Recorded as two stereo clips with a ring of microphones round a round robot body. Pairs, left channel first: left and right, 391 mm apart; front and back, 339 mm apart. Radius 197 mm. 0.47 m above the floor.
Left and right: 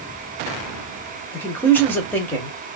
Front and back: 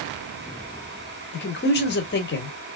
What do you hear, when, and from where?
1.3 s a man speaking: 10° left, 1.2 m